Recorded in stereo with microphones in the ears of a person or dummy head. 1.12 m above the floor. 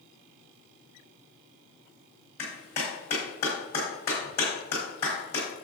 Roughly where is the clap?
Left.